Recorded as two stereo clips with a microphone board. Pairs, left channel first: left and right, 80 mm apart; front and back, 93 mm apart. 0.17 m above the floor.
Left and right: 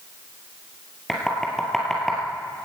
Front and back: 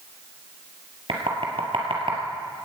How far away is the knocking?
About 2.5 m.